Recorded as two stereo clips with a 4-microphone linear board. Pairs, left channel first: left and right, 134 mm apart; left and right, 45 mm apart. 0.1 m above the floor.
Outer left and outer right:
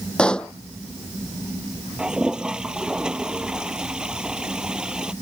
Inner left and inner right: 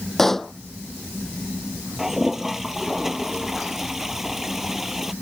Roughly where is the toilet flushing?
Centre.